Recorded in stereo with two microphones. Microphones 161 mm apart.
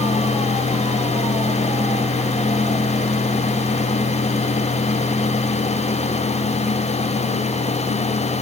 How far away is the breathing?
I don't hear breathing.